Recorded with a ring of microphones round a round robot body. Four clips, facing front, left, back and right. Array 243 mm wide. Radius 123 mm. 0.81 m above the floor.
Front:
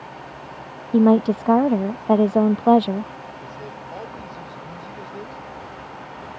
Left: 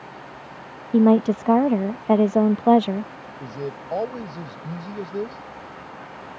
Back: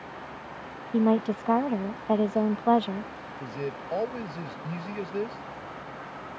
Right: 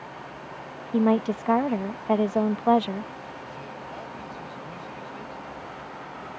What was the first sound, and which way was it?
A woman speaking, 40° left.